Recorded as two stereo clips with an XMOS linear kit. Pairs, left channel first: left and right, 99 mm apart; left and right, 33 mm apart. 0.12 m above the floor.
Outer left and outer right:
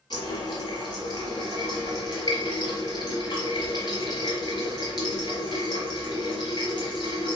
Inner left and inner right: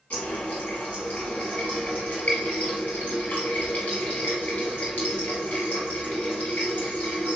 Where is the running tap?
50° left (ahead or behind), 1.7 m.